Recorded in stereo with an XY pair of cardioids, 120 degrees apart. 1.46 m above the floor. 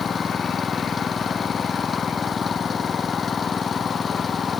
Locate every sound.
0.0 s an engine running: 25° left